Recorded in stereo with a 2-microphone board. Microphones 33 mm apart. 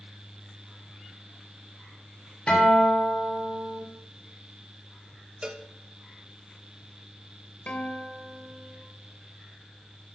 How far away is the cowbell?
About 0.9 m.